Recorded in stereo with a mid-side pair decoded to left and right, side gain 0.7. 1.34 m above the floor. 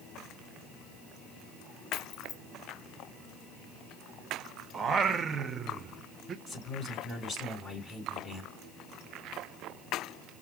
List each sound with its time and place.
1.9 s keys jangling: 40° left, 1.1 m
4.7 s singing: 35° right, 0.6 m
6.5 s a man speaking: 5° right, 3.5 m